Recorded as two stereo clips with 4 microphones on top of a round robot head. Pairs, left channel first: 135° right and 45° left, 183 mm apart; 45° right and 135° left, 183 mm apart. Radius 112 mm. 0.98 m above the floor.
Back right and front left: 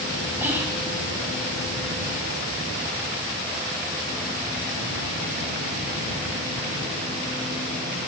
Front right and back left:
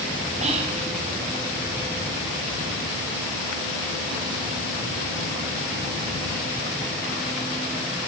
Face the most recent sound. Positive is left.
turn(degrees=115)